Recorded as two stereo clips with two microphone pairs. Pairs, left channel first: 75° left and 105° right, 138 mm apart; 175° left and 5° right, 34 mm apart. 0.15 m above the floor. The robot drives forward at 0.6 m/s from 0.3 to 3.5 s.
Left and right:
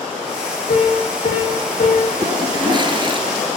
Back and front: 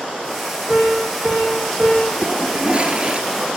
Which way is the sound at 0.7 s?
65° left.